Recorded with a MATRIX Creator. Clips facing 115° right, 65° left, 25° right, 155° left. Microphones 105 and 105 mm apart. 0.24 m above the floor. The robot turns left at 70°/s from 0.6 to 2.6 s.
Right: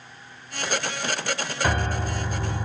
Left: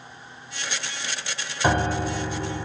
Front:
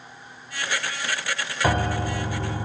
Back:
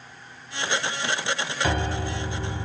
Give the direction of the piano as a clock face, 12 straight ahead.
12 o'clock.